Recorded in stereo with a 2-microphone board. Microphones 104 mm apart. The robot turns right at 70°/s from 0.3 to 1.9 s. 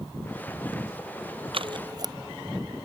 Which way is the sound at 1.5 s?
60° right (ahead or behind).